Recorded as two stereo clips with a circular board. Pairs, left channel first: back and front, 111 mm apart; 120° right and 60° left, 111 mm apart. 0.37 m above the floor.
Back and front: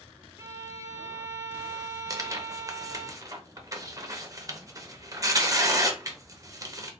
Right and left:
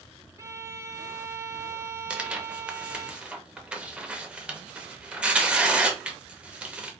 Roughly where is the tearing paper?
Ahead.